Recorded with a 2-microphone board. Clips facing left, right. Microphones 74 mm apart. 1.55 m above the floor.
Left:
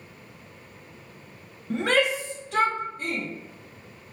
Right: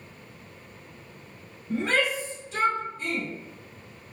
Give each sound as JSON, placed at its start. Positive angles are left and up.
{"t": 1.7, "sound": "a shout", "side_deg": 80, "distance_m": 1.0}